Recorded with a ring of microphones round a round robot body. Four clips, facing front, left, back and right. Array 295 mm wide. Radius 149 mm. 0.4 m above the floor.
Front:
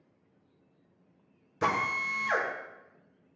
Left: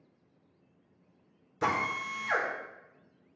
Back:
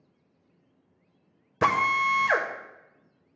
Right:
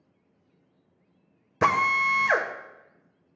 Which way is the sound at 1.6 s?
125° right.